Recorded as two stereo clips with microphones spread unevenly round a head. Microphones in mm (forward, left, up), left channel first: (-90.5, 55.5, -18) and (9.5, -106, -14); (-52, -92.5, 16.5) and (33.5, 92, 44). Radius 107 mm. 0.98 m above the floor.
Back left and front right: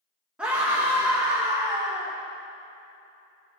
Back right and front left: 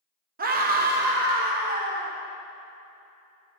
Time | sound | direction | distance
0.4 | a scream | 25° left | 1.2 m